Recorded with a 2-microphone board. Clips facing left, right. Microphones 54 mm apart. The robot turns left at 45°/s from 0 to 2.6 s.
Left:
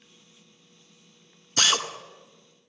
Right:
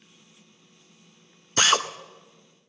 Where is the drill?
20° right (ahead or behind), 0.7 m; by 1.9 s 25° right (ahead or behind), 0.7 m.